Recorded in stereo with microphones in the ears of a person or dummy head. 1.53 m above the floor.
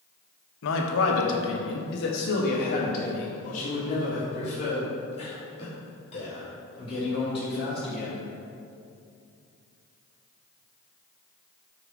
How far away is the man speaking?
About 1.4 m.